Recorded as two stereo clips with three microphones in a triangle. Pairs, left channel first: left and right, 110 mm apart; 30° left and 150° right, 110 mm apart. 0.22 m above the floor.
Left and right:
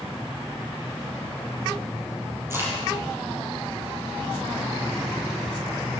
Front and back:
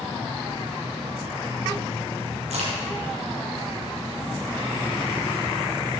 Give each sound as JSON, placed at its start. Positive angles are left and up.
{"t": 2.5, "sound": "a crack", "azimuth_deg": -155, "distance_m": 6.0}